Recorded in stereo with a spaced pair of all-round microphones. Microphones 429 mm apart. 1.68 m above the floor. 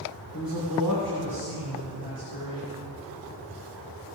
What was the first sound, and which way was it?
A man speaking, 50° left (ahead or behind).